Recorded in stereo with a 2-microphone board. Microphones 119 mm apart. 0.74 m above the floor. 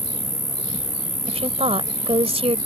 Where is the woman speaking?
60° right (ahead or behind).